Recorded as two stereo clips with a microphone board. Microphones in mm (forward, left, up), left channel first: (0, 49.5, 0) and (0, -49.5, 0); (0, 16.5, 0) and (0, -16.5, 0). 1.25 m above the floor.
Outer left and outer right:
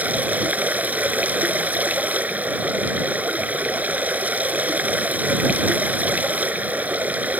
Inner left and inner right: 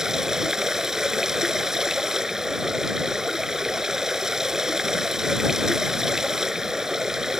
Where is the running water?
15° right (ahead or behind).